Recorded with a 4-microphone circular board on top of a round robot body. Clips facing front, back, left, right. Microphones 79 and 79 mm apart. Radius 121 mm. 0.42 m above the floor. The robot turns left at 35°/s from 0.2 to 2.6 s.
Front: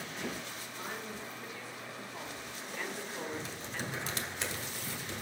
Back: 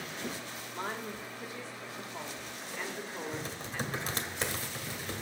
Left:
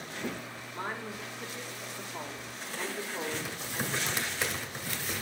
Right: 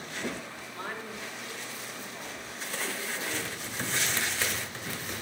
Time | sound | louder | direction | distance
0.7 | a woman speaking | back 5 dB, left 1 dB | 160° left | 2 m
3.3 | typing on a keyboard | back 2 dB, even | 165° left | 1.9 m